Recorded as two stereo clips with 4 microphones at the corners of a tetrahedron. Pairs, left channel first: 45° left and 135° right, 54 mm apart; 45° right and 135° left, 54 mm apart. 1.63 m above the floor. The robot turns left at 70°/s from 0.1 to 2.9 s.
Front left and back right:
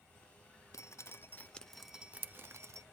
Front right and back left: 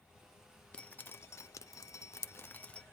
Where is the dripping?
30° left, 0.7 m; by 2.8 s 115° right, 0.7 m.